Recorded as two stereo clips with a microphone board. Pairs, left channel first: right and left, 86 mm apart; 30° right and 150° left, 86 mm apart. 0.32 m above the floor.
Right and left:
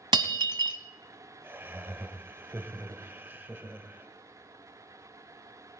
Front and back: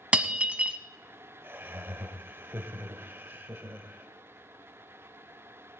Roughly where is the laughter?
Behind left.